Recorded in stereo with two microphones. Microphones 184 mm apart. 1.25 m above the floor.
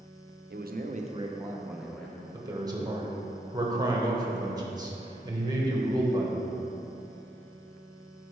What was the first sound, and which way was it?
A man speaking, 65° right (ahead or behind).